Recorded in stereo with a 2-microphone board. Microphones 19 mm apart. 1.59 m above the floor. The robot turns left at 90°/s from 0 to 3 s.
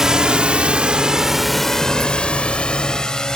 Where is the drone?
30° right (ahead or behind); by 3.4 s 35° left (ahead or behind).